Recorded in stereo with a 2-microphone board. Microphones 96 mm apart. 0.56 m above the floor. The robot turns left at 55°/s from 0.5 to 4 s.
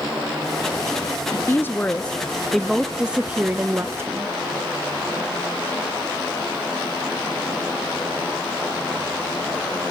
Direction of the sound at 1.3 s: 25° left (ahead or behind).